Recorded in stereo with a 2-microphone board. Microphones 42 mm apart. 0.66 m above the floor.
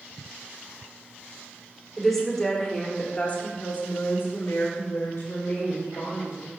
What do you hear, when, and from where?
2.0 s a woman speaking: centre (ahead or behind), 1.8 m; by 6.5 s 70° left (ahead or behind), 2.5 m